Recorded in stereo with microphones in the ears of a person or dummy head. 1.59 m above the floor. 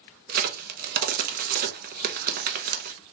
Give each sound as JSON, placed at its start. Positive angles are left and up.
{"t": 0.3, "sound": "a crack", "side_deg": -40, "distance_m": 0.7}